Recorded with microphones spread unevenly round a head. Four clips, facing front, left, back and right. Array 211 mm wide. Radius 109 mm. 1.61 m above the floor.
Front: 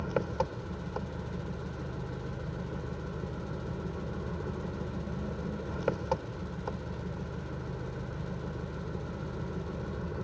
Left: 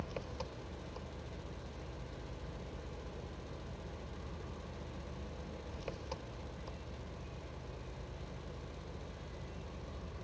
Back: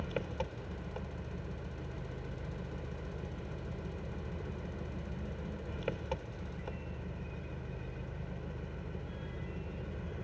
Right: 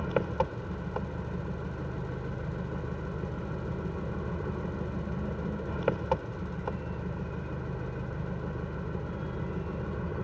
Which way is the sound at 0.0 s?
60° right.